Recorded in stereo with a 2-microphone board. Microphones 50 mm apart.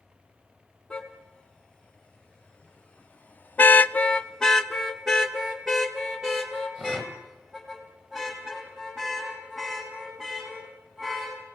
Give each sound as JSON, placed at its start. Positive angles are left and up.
{"t": 0.9, "sound": "a car horn", "side_deg": 15, "distance_m": 3.0}